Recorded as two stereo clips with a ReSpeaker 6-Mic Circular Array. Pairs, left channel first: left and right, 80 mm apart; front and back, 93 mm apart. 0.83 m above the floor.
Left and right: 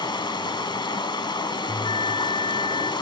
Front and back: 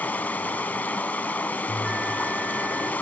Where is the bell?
90° left, 2.5 m.